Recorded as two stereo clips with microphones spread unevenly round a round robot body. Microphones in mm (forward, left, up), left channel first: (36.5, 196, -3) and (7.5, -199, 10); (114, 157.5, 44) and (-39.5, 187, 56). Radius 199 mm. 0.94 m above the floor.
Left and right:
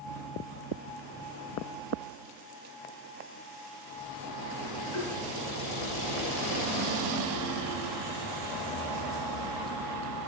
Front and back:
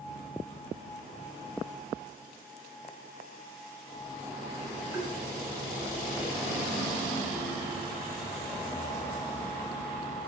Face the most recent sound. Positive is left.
turn(degrees=85)